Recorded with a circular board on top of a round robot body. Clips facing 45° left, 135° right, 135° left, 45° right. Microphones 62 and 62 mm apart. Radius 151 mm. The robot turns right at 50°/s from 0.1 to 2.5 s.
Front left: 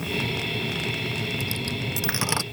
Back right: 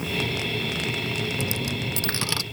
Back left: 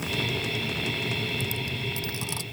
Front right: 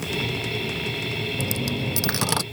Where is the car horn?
No car horn in this recording.